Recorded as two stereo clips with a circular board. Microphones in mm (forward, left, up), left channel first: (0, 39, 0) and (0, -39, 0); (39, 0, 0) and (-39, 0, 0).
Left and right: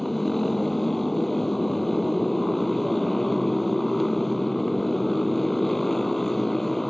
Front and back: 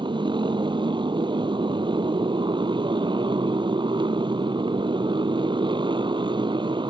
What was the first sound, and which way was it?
A motorcycle, 175° left.